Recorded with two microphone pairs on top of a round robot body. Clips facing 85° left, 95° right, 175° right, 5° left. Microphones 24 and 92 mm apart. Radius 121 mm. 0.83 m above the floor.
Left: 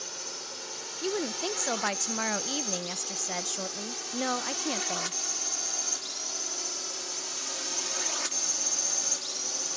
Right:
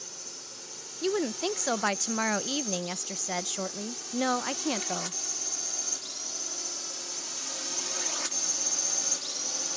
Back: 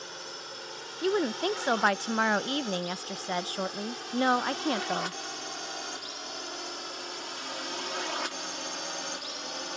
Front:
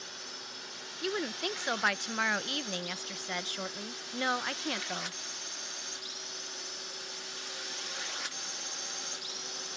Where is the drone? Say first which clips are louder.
Left 4 dB, back 5 dB; 140° left; by 9.8 s 175° left.